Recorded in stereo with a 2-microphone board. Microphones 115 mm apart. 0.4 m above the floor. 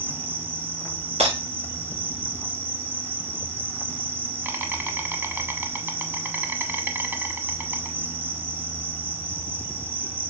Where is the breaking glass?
80° right, 2.5 m.